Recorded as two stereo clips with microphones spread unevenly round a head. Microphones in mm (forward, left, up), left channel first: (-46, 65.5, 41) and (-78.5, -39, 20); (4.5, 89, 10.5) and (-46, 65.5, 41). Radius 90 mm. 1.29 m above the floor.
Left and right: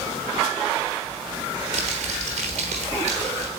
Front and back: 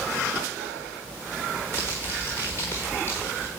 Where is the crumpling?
55° right, 1.0 m.